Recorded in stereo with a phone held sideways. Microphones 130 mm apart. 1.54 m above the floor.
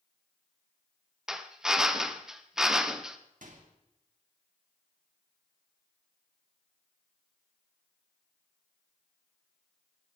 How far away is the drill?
About 0.9 m.